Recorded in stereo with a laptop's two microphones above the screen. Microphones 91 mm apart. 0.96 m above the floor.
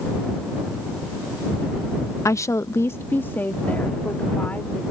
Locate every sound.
2.2 s a woman speaking: 35° left (ahead or behind); by 4.8 s 15° left (ahead or behind)